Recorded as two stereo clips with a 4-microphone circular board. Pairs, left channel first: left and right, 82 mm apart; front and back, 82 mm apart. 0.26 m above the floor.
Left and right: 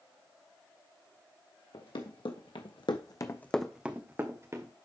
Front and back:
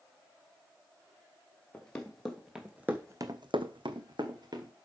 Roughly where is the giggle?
I don't hear a giggle.